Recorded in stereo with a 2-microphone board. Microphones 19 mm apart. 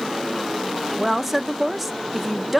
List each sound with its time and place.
1.0 s a woman speaking: 5° right (ahead or behind), 0.6 m